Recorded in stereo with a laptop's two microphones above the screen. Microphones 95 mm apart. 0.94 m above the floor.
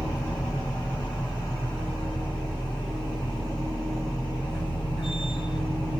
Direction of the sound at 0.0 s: 55° left (ahead or behind).